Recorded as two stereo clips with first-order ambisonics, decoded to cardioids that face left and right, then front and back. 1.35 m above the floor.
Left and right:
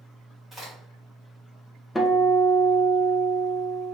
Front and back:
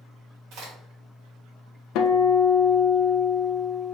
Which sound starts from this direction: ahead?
A guitar, at 1.9 s.